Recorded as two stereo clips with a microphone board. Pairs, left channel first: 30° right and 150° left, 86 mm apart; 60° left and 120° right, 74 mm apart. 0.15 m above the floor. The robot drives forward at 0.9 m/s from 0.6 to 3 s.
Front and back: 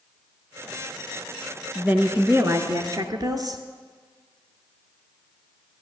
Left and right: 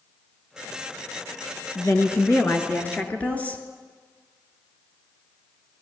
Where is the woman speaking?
80° left, 1.7 m; by 3.6 s 125° left, 1.9 m.